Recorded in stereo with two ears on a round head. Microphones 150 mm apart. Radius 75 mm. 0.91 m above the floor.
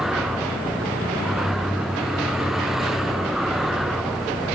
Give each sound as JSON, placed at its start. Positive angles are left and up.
{"t": 0.0, "sound": "a vehicle", "side_deg": 0}